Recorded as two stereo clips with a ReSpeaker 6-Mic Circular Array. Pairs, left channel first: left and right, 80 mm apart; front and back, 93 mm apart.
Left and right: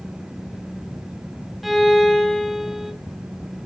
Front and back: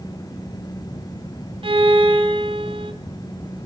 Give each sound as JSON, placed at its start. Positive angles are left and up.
{"t": 1.6, "sound": "a violin", "azimuth_deg": 180, "distance_m": 2.5}